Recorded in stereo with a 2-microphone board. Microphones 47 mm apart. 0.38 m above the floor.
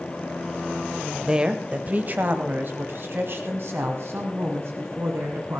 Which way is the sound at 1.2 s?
15° right (ahead or behind).